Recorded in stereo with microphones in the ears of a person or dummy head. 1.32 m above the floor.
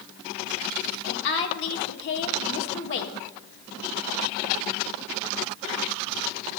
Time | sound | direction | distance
1.1 | a woman speaking | 75° left (ahead or behind) | 1.6 m